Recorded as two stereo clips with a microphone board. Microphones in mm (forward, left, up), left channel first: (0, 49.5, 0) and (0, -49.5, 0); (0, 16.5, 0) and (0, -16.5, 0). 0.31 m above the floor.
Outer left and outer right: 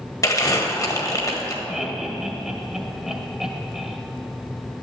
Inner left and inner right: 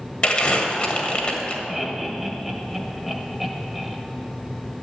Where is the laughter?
5° right (ahead or behind), 1.6 m.